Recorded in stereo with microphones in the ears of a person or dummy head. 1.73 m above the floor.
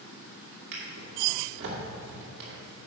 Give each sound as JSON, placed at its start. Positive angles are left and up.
{"t": 0.7, "sound": "a drawer", "side_deg": -60, "distance_m": 2.0}